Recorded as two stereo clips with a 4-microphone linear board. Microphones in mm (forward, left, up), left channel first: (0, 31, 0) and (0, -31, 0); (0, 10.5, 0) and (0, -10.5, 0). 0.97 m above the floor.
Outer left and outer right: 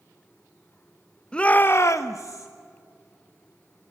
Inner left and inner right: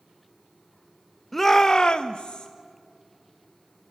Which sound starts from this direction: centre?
A shout, at 1.3 s.